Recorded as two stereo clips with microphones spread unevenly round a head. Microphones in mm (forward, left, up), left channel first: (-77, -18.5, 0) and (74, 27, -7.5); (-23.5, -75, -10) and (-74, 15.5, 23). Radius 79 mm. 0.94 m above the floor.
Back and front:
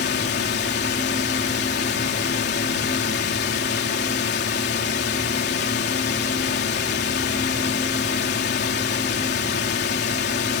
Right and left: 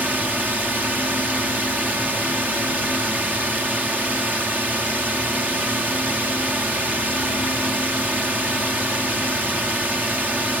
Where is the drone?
160° right.